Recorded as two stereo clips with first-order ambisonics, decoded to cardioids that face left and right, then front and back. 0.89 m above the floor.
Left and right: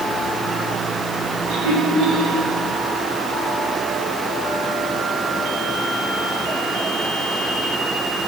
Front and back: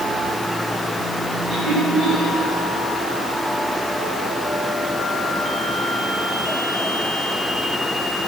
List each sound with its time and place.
1.5 s laughter: 95° right, 5 m